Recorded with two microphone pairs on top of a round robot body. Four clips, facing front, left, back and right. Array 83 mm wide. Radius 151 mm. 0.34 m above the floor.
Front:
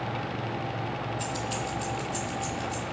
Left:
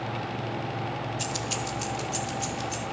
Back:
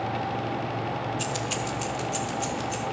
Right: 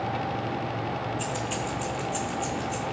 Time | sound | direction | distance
1.2 | keys jangling | 175° right | 1.4 m